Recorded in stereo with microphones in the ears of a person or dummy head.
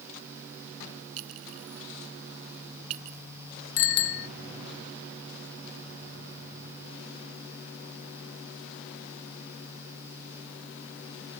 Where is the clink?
80° right.